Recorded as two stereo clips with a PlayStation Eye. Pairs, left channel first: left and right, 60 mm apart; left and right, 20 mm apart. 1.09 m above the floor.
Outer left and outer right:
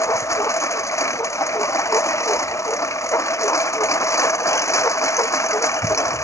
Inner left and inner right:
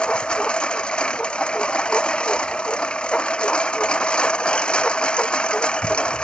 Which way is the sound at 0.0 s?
60° left (ahead or behind).